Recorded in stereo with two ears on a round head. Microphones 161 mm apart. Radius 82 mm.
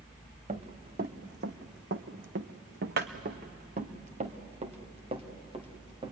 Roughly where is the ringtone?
I don't hear a ringtone.